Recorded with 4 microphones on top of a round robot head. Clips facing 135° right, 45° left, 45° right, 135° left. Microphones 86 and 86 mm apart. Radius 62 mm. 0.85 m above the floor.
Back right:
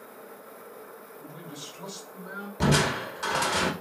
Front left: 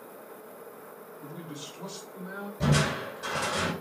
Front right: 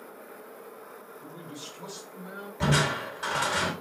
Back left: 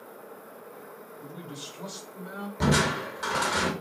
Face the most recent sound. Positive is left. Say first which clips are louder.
# back right 3 dB, back left 1 dB
turn(degrees=-155)